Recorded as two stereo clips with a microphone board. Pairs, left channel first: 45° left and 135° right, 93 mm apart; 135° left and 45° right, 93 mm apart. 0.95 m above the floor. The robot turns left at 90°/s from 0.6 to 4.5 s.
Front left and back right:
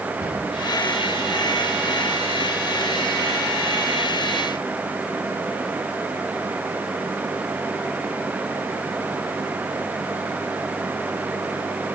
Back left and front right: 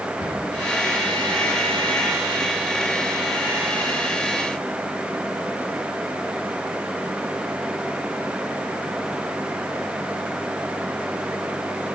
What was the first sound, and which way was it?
A cupboard door, 170° left.